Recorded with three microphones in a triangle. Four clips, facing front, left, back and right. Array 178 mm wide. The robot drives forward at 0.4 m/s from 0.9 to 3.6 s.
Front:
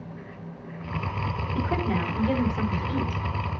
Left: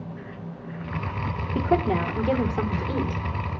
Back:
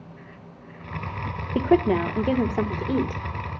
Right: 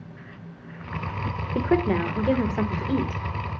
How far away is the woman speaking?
About 1.9 m.